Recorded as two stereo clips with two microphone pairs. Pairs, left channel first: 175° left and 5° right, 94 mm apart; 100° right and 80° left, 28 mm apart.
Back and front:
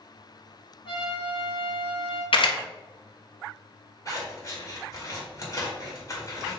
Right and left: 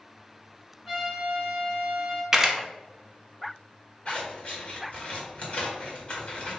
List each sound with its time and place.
0.8 s a trumpet: 170° left, 1.8 m
2.3 s a camera shutter: 155° left, 0.9 m
4.0 s scissors: 140° right, 1.8 m